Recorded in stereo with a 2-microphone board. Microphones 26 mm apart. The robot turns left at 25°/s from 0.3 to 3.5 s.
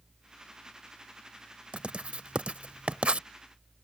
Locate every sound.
1.7 s writing: 50° right (ahead or behind)